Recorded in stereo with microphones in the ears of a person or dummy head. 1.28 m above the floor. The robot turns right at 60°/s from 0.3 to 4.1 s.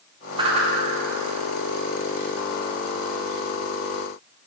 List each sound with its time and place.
0.4 s a whoosh: 25° right (ahead or behind), 0.9 m; by 0.7 s 45° right (ahead or behind), 0.9 m